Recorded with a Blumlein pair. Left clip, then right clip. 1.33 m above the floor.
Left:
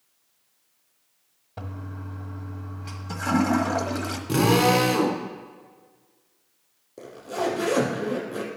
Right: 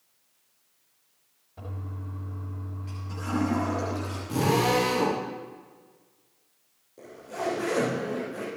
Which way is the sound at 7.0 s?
65° left.